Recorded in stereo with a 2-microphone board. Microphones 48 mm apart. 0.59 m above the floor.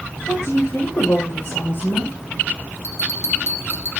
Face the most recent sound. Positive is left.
turn(degrees=65)  # may be behind; listen again after turning